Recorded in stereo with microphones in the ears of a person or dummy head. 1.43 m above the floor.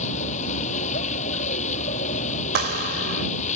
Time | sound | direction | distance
0.0 | a vehicle | 40° left (ahead or behind) | ?
2.5 | a clap | 60° right (ahead or behind) | ?